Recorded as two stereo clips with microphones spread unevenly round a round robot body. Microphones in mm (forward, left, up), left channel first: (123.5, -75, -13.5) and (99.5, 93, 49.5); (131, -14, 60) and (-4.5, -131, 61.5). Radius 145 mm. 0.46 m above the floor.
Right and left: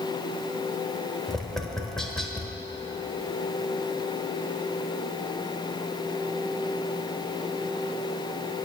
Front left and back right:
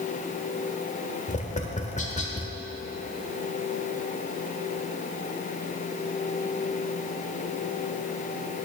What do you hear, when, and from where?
1.3 s tapping: 5° right, 1.3 m